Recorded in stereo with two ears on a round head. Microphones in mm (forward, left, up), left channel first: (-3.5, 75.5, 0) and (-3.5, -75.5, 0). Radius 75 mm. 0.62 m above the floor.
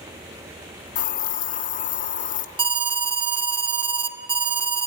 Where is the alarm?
30° right (ahead or behind), 0.7 m.